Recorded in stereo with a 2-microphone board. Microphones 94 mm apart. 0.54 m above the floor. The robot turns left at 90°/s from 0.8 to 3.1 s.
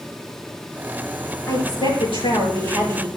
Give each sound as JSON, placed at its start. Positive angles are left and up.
{"t": 1.5, "sound": "a woman speaking", "azimuth_deg": 150, "distance_m": 7.0}